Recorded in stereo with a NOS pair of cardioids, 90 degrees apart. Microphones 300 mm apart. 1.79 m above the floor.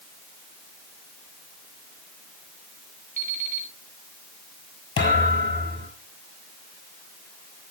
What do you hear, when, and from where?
3.2 s an alarm clock: 30° right, 4 m
5.0 s a thud: 40° left, 6 m